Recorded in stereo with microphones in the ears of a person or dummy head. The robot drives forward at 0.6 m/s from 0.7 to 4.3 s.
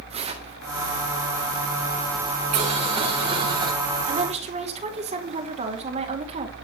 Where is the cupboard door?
I don't hear a cupboard door.